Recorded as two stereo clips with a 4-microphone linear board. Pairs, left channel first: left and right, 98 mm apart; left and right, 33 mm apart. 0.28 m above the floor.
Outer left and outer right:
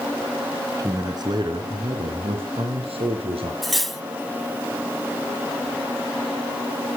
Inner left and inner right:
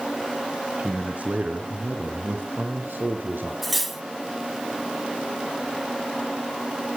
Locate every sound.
0.8 s a man speaking: 35° right (ahead or behind), 3 m; by 3.5 s 75° right (ahead or behind), 4 m
3.6 s cutlery clinking: centre (ahead or behind), 1.1 m